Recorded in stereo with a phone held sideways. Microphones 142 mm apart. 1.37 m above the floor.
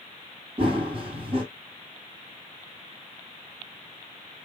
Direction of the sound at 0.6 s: 40° right (ahead or behind).